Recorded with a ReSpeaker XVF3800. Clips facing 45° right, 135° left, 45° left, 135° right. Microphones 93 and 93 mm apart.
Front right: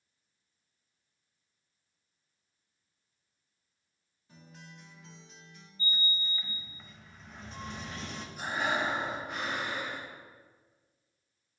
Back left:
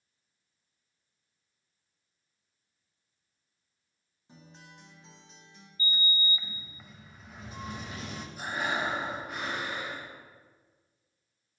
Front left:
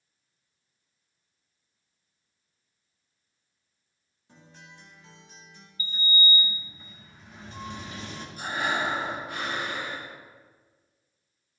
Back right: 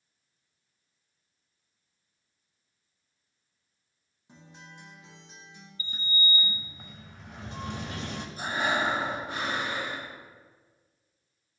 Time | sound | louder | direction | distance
4.3 | a guitar | even, back right 1 dB | 170° left | 1.2 m
5.8 | a sliding door | back left 3 dB, front left 4 dB | 145° right | 0.6 m
8.4 | breathing | front right 1 dB, even | 140° right | 1.3 m